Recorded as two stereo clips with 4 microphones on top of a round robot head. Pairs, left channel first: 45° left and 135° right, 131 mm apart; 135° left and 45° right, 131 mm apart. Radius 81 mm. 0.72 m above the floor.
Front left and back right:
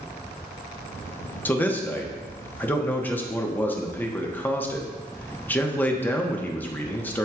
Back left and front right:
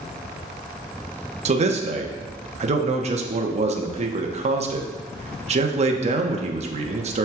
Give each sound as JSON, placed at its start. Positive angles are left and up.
{"t": 1.4, "sound": "a man speaking", "azimuth_deg": -30, "distance_m": 1.0}